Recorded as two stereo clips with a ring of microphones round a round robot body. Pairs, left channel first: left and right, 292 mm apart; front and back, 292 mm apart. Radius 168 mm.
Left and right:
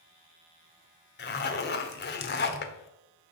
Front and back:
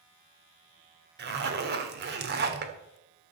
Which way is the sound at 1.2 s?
135° left.